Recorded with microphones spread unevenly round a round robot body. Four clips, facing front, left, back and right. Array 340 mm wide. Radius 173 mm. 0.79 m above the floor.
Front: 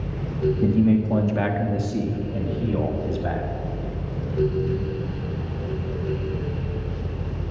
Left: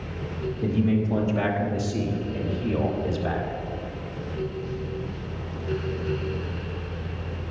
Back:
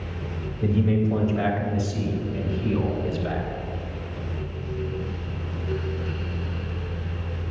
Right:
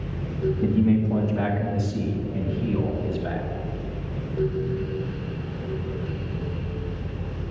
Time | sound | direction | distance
0.6 | a man speaking | 5° right | 1.5 m